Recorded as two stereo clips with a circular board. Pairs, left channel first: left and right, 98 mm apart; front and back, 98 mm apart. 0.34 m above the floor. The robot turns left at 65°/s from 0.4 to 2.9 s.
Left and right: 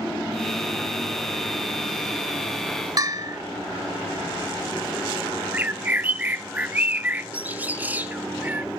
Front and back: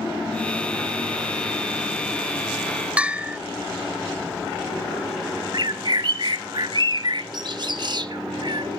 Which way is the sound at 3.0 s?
110° right.